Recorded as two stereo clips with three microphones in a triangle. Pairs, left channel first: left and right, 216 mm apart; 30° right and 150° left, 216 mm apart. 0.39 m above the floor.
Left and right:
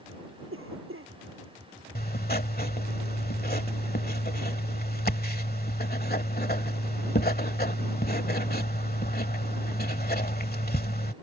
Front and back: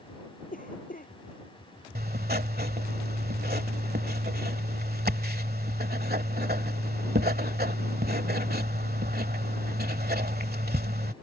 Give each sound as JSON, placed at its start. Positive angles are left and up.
{"t": 0.5, "sound": "a cough", "azimuth_deg": -80}
{"t": 1.9, "sound": "writing", "azimuth_deg": 120}